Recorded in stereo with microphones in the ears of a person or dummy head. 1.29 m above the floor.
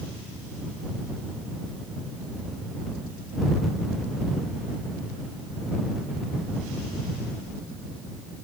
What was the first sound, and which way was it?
Only background noise.